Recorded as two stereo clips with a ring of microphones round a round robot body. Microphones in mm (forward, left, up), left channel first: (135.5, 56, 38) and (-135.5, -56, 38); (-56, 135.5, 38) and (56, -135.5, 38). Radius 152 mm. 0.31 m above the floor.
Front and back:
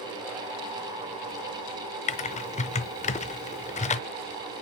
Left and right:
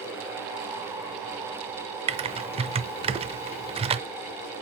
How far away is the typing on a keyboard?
About 0.6 m.